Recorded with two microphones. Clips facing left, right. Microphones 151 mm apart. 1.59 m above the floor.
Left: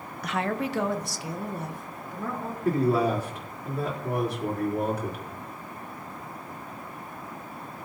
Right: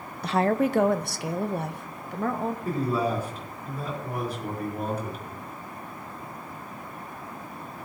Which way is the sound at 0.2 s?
25° right (ahead or behind).